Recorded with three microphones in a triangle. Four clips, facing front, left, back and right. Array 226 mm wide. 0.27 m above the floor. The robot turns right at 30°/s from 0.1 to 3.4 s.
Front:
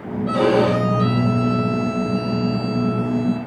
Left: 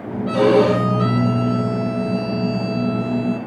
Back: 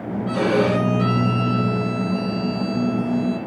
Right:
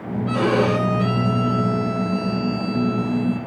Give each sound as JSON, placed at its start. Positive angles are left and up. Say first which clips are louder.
{"t": 0.3, "sound": "a violin", "louder": "left 5 dB, front 3 dB", "azimuth_deg": 60, "distance_m": 9.0}